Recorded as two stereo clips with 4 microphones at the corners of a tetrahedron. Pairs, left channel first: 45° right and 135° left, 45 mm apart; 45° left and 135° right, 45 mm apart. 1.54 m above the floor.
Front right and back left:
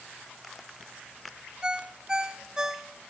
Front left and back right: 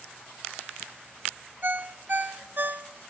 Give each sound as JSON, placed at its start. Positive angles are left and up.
{"t": 1.6, "sound": "a ringtone", "azimuth_deg": -155, "distance_m": 0.6}